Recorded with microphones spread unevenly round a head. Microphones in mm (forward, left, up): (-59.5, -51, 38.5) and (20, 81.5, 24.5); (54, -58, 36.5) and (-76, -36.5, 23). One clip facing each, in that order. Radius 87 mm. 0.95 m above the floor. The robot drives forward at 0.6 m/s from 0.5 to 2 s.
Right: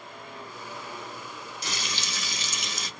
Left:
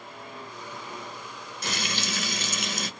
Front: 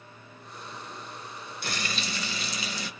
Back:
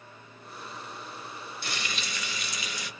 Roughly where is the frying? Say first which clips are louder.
Left 6 dB, front 4 dB; ahead left.